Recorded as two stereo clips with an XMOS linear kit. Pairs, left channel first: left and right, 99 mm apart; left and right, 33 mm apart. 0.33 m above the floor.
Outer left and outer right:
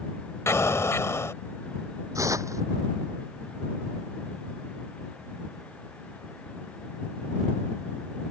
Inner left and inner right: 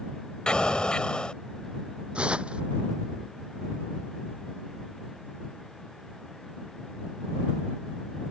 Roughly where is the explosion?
Left.